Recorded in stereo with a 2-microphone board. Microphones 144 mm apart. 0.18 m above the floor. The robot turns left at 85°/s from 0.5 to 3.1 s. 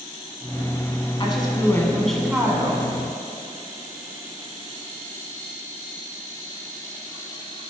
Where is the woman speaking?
80° left, 1.4 m; by 2.9 s 65° right, 1.4 m.